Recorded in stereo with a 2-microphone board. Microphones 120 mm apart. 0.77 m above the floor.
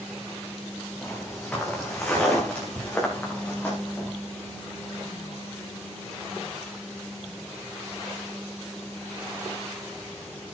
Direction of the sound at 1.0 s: 10° left (ahead or behind).